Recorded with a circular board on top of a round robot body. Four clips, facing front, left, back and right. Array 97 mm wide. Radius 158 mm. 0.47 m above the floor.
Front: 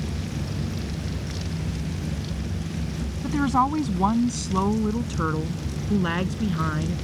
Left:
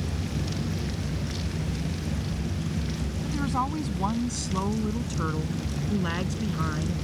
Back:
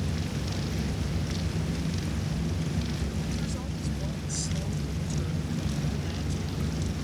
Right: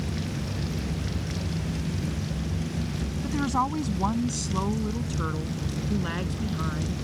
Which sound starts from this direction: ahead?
A woman speaking, at 3.2 s.